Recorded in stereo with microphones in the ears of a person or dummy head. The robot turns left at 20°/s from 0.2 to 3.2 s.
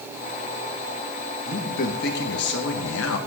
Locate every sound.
1.4 s a man speaking: 130° left, 1.4 m; by 3.2 s 95° left, 1.4 m